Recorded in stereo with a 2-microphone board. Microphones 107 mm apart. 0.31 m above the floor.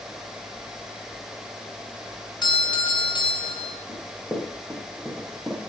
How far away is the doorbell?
About 2.0 m.